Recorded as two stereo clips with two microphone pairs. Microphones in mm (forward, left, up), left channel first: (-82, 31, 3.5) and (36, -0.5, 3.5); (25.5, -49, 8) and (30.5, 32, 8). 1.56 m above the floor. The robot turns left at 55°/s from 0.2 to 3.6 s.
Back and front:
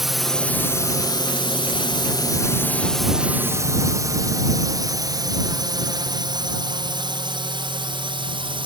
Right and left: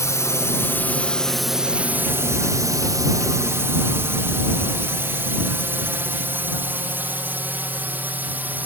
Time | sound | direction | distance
0.0 | a drone | 100° right | ?